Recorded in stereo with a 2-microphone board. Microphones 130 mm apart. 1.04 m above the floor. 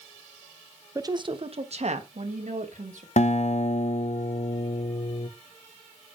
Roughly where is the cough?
I don't hear a cough.